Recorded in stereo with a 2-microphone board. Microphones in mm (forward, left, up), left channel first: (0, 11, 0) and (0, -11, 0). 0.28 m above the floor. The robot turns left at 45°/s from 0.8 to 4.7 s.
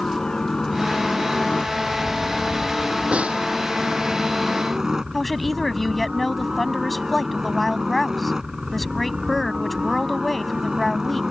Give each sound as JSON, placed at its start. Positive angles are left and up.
{"t": 0.0, "sound": "a helicopter", "azimuth_deg": 145}
{"t": 3.1, "sound": "a snare drum", "side_deg": -75}
{"t": 5.1, "sound": "a woman speaking", "side_deg": 5}